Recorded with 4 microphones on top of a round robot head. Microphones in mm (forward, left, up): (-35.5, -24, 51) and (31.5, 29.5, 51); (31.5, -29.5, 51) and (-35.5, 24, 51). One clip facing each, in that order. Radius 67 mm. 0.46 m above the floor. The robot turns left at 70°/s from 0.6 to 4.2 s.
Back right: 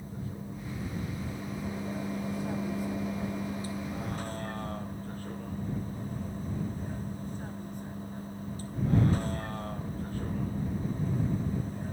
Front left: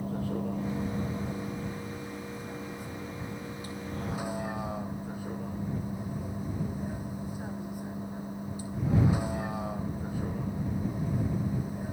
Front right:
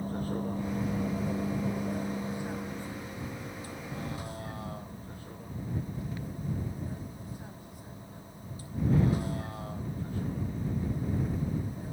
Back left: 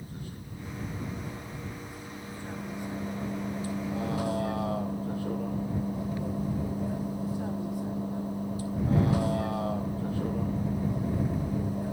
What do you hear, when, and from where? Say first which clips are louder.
0.0 s a vehicle: front left 8 dB, front right 10 dB; 10° left; by 11.9 s 120° left